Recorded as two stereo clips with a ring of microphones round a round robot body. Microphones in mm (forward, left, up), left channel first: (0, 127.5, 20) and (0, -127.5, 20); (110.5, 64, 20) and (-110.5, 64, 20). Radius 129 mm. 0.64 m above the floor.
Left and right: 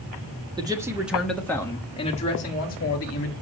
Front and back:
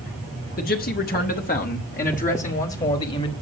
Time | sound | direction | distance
0.6 | a man speaking | 25° right | 1.3 m